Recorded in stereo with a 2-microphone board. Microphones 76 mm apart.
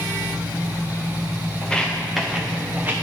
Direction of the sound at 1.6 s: 15° left (ahead or behind).